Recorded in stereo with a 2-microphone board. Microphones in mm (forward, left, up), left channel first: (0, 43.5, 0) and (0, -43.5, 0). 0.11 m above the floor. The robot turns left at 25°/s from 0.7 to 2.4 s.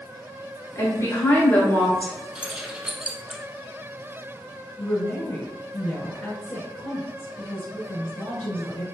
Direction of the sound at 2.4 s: 15° right (ahead or behind).